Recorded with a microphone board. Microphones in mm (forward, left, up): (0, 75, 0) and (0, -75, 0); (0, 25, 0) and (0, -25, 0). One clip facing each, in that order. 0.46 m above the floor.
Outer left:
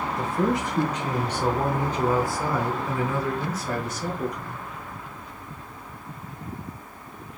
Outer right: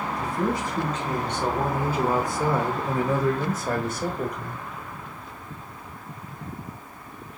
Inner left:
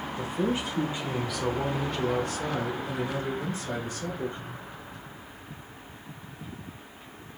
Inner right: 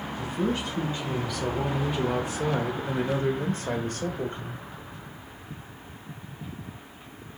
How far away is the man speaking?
About 1.5 m.